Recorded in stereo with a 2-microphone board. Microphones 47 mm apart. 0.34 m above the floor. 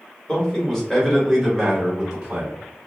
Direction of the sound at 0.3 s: 20° left (ahead or behind).